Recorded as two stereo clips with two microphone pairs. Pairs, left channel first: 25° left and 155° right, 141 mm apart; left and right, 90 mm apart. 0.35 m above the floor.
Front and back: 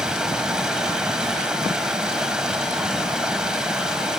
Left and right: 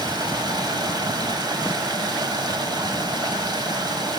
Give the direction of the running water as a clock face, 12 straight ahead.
2 o'clock.